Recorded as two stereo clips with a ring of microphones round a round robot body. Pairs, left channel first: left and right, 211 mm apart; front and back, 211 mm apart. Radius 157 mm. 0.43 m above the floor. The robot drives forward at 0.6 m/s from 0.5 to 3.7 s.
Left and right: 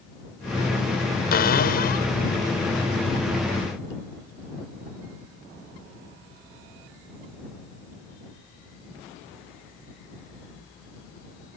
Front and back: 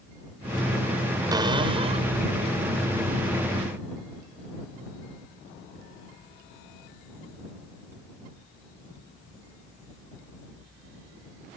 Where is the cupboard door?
110° left; by 2.1 s 125° left.